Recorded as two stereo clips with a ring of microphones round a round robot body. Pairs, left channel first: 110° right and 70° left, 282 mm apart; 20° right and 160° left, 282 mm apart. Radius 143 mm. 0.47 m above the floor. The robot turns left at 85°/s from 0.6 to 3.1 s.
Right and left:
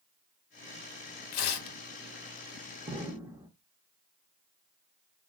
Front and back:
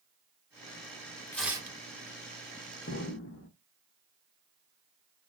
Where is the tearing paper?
105° right, 0.6 m; by 1.8 s 140° right, 0.6 m.